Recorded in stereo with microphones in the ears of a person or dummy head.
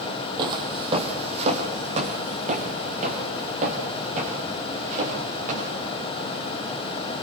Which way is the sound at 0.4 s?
30° right (ahead or behind).